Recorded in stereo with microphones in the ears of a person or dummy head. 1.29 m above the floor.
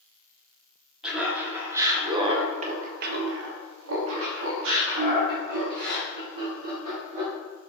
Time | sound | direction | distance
1.0 | laughter | 5° right (ahead or behind) | 1.5 m